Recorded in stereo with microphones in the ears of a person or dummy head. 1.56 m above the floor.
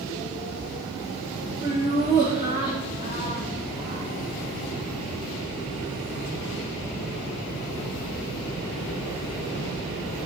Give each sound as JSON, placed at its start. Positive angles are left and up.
{"t": 1.6, "sound": "laughter", "side_deg": -25, "distance_m": 2.0}